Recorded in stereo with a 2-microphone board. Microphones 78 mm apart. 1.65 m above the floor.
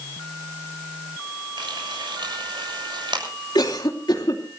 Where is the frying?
80° right, 7 m.